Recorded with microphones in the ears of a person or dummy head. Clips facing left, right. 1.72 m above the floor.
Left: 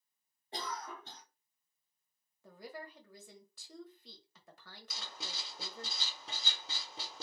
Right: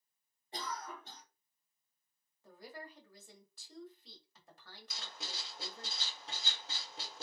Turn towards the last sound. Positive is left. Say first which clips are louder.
# left 1 dB
turn(degrees=75)  # may be behind; listen again after turning